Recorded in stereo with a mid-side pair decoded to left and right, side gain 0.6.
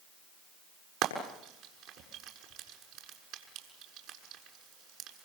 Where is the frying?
70° right, 7 m.